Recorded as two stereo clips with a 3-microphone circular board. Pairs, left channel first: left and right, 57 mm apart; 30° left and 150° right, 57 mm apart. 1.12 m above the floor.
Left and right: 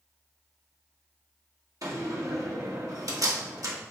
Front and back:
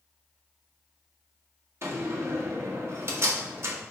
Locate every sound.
1.8 s a door slam: 110° right, 1.6 m